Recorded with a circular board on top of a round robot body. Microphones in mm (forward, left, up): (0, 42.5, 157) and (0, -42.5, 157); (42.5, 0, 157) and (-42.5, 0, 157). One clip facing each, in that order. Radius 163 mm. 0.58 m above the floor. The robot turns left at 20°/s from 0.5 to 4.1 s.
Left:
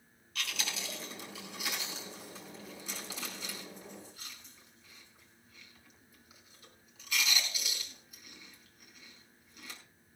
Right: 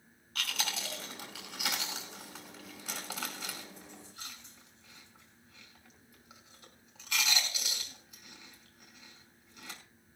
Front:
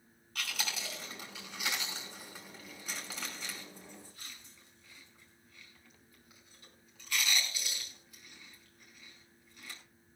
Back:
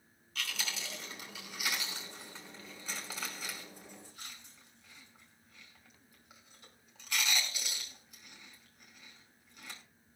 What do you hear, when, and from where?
0.3 s chewing: 40° right, 5 m; by 9.8 s 110° right, 5 m